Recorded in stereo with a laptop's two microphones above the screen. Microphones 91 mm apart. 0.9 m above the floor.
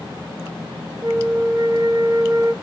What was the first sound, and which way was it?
A flute, 45° right (ahead or behind).